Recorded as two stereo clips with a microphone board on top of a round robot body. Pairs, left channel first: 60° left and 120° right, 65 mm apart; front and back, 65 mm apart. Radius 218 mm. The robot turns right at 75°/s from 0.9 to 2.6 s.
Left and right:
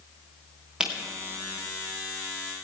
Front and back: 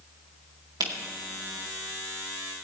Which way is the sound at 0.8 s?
165° left.